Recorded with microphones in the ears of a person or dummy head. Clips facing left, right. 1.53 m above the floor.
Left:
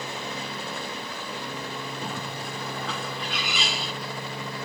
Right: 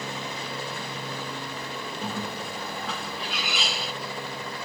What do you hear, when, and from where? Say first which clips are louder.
2.0 s a bird: right 1 dB; centre (ahead or behind), 1.5 m